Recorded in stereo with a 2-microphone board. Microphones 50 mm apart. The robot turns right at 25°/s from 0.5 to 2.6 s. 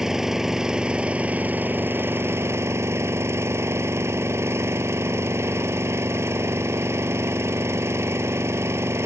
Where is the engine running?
170° right; by 9.1 s 120° right.